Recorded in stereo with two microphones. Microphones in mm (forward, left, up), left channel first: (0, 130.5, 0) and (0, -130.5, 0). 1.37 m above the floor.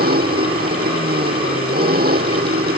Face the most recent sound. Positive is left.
turn(degrees=-40)  # may be behind; listen again after turning